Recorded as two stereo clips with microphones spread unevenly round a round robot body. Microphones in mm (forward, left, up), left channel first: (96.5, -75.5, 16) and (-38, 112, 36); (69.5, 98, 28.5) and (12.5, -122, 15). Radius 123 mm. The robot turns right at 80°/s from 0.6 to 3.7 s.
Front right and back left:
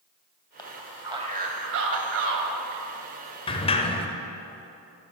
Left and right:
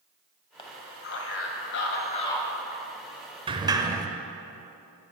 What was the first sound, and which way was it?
A man speaking, 10° left.